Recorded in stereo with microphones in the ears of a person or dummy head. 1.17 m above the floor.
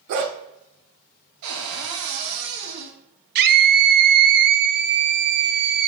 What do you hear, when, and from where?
0.1 s a dog barking: 50° right (ahead or behind), 1.1 m
1.4 s a cupboard door: 75° right (ahead or behind), 1.7 m
3.4 s a scream: 50° right (ahead or behind), 0.5 m